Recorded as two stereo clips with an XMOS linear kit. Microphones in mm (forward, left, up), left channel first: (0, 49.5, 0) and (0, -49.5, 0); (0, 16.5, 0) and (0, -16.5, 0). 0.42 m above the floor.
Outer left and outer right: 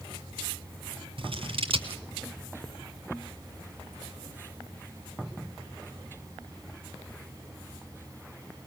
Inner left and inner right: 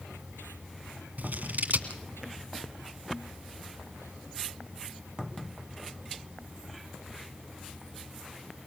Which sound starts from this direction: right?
Scissors, at 1.2 s.